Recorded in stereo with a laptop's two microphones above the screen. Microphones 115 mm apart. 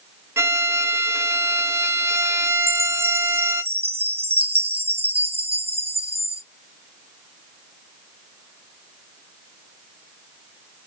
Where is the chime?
55° right (ahead or behind), 0.5 m.